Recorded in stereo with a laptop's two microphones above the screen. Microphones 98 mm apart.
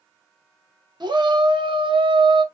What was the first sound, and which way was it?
A shout, 45° right (ahead or behind).